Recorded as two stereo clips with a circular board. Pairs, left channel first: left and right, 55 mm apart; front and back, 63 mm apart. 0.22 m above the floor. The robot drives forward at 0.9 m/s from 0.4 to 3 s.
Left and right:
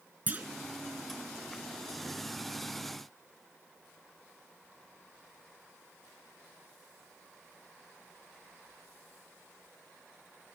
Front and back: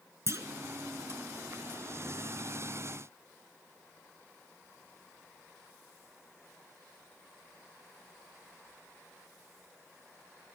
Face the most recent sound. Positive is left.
turn(degrees=-165)